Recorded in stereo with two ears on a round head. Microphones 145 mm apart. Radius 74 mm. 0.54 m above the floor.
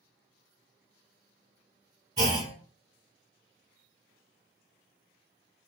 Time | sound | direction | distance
2.2 | a clunk | 25° right (ahead or behind) | 1.5 m